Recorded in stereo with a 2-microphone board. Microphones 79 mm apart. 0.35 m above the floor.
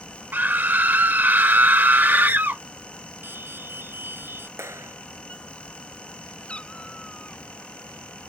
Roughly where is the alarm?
Right.